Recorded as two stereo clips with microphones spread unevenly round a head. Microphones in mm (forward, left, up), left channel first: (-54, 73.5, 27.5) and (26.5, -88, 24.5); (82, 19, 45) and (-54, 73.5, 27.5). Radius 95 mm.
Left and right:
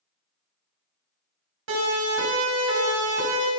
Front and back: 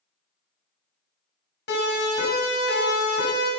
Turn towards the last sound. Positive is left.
turn(degrees=-35)